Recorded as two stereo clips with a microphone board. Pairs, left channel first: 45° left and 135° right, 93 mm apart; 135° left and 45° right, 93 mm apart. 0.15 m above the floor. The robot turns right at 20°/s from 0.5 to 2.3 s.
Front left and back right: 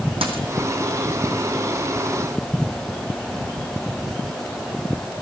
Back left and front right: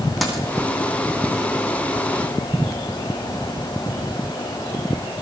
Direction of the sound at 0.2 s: 135° right.